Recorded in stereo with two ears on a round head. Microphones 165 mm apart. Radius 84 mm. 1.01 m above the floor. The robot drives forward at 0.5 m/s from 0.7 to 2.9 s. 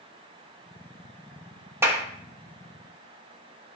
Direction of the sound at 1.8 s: 15° right (ahead or behind).